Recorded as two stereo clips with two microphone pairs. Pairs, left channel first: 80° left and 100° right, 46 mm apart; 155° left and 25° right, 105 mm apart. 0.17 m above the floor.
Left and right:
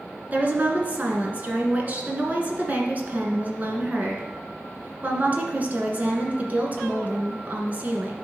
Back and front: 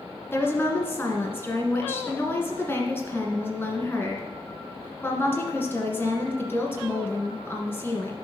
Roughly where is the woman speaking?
Behind right.